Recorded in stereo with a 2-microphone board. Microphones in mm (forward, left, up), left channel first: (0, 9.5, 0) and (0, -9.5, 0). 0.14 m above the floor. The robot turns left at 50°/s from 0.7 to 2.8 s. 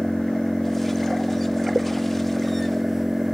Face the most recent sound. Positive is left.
turn(degrees=-10)